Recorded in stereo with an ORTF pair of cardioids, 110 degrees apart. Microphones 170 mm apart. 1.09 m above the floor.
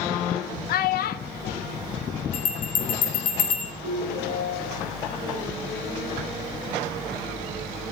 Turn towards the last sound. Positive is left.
turn(degrees=35)